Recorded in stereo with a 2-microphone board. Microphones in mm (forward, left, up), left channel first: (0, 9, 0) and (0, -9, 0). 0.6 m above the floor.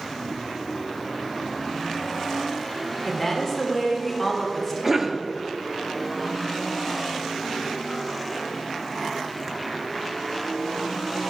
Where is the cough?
15° right (ahead or behind), 0.7 m.